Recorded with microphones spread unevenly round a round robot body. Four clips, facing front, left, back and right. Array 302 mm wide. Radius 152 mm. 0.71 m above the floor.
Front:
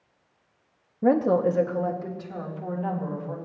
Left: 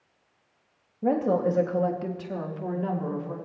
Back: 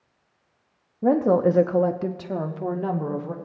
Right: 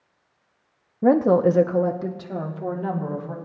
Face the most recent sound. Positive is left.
turn(degrees=-175)